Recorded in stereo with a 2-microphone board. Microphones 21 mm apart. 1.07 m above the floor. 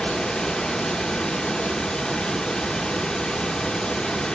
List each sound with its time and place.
0.0 s running water: 55° left (ahead or behind), 0.9 m